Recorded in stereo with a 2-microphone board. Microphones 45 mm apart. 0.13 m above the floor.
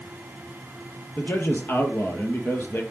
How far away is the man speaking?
About 2.5 m.